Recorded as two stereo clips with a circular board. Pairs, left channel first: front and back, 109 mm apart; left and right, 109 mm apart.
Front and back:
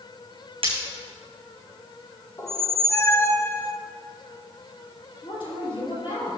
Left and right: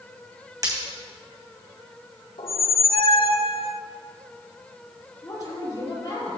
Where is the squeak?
60° left, 0.5 m.